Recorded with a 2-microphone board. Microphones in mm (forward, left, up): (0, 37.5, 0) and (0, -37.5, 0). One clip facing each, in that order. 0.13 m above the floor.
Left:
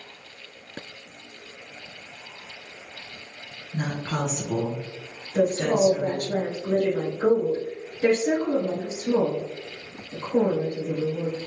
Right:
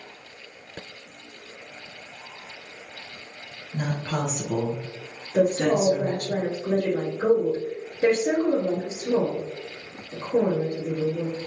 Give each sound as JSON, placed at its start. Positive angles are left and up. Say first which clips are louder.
{"t": 3.7, "sound": "a woman speaking", "louder": "even", "side_deg": 25, "distance_m": 1.3}
{"t": 5.3, "sound": "a woman speaking", "louder": "right 1 dB", "side_deg": -35, "distance_m": 2.0}